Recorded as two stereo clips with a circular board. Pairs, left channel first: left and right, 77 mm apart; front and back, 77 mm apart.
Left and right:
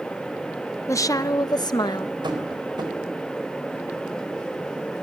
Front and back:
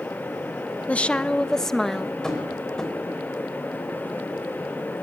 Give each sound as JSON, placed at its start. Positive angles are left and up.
{"t": 0.9, "sound": "a woman speaking", "azimuth_deg": 65, "distance_m": 0.7}
{"t": 2.2, "sound": "tapping", "azimuth_deg": -80, "distance_m": 4.0}